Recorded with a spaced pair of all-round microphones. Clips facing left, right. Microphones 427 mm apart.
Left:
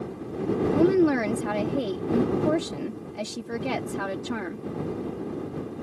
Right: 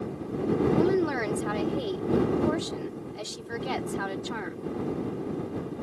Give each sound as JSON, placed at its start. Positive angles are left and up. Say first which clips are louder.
{"t": 0.7, "sound": "a woman speaking", "louder": "left 4 dB", "side_deg": 70}